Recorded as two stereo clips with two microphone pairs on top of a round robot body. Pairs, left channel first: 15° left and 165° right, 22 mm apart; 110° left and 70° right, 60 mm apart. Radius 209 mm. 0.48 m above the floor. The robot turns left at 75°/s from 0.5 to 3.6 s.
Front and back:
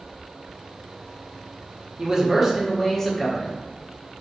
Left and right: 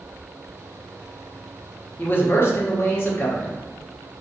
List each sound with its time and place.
2.0 s a man speaking: 160° left, 0.9 m; by 3.5 s 45° left, 0.9 m